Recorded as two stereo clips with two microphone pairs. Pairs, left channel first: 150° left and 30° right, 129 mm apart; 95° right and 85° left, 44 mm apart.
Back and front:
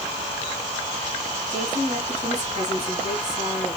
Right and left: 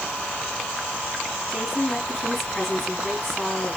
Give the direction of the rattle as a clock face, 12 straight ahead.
I don't hear a rattle.